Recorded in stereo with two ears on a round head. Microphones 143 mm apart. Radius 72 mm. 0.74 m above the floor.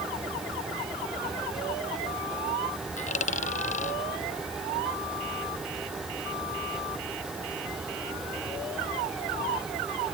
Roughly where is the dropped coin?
Left.